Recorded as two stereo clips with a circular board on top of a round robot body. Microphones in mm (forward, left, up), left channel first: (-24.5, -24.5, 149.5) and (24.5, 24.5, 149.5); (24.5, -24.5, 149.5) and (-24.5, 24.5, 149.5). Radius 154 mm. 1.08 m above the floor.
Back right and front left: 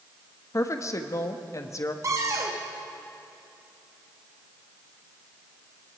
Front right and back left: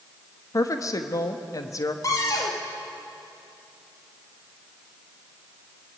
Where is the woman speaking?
90° right, 1.6 m.